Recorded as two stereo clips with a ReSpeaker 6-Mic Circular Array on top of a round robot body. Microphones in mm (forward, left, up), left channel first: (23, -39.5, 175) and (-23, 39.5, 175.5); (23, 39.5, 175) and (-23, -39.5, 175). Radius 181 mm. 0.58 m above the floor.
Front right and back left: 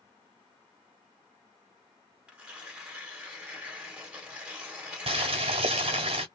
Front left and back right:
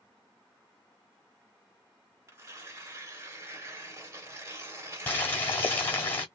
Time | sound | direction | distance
2.3 | tearing paper | 165° right | 1.7 m
5.1 | boiling | 130° left | 1.0 m